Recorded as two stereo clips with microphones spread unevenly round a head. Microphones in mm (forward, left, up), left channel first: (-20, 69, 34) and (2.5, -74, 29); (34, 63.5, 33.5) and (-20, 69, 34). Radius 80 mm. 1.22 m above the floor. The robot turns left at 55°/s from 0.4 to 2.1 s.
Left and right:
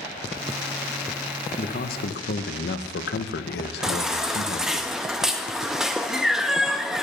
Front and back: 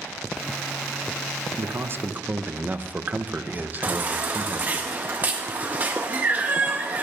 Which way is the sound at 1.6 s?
145° left.